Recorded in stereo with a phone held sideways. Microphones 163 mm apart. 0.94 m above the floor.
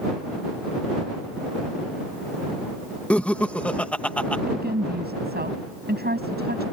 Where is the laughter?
10° left (ahead or behind).